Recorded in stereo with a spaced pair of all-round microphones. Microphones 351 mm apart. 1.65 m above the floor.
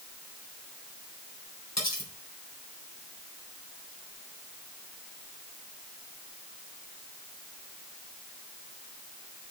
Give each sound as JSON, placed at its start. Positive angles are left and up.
{"t": 1.8, "sound": "cutlery clinking", "side_deg": 50, "distance_m": 3.5}